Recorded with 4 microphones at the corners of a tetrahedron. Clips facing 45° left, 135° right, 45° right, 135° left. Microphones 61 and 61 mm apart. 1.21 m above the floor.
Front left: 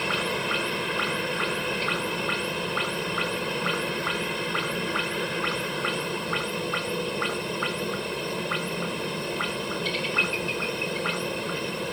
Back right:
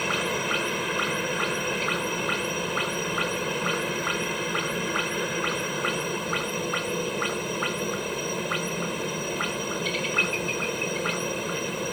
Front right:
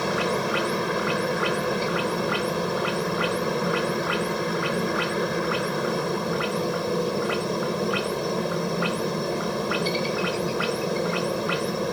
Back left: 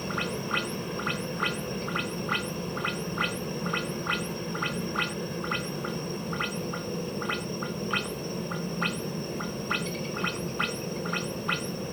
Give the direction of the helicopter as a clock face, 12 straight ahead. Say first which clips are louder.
Even, front right 8 dB; 2 o'clock.